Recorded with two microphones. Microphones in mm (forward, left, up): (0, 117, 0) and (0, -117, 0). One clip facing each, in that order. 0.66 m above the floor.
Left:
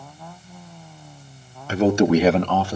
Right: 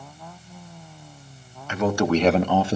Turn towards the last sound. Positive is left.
turn(degrees=-25)  # may be behind; listen again after turning